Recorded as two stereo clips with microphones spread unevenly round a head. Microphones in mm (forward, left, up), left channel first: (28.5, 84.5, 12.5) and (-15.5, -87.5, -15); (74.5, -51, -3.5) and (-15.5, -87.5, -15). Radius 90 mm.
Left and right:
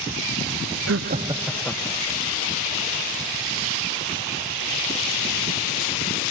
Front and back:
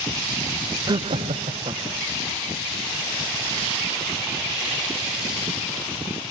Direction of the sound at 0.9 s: 110° right.